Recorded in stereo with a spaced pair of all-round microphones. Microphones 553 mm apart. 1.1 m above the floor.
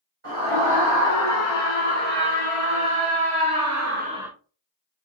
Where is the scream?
70° right (ahead or behind), 2 m; by 4.3 s centre (ahead or behind), 0.5 m.